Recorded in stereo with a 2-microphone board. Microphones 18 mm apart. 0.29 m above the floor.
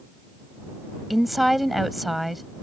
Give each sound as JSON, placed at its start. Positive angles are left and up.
{"t": 1.1, "sound": "a woman speaking", "side_deg": -5}